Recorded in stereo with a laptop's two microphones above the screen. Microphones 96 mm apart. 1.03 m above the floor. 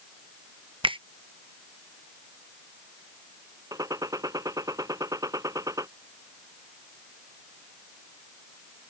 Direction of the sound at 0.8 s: 65° right (ahead or behind).